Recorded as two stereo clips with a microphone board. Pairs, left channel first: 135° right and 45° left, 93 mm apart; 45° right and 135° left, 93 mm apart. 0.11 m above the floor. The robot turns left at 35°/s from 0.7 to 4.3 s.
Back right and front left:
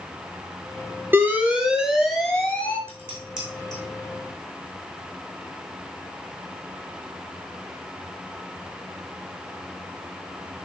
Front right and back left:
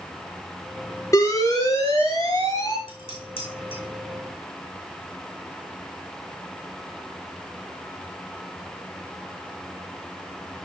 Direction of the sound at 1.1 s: 10° right.